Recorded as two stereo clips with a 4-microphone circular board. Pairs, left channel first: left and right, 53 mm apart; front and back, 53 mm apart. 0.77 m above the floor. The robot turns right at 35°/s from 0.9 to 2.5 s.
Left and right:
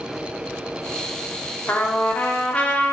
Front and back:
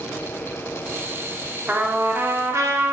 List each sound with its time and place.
1.7 s a trumpet: 125° left, 0.6 m; by 2.9 s 155° left, 0.6 m